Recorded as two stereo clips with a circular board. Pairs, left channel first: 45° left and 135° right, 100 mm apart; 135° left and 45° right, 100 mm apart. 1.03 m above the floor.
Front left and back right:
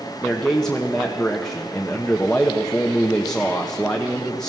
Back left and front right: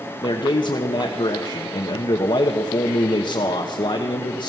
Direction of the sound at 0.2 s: 125° left.